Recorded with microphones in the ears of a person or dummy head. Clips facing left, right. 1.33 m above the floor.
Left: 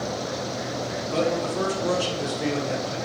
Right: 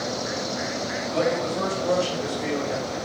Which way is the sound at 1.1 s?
75° left (ahead or behind).